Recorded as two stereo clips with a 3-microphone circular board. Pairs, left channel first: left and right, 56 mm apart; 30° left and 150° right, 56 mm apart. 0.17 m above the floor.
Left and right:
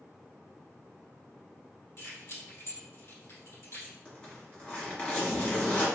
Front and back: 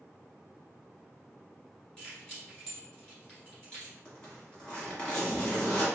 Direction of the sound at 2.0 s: 100° left.